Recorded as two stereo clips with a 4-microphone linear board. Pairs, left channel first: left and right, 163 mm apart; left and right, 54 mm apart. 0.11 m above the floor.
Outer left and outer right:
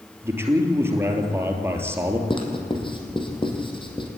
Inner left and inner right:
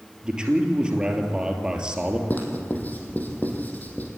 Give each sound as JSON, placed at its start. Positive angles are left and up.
{"t": 0.2, "sound": "a man speaking", "side_deg": -15, "distance_m": 3.0}
{"t": 2.3, "sound": "writing", "side_deg": 30, "distance_m": 3.5}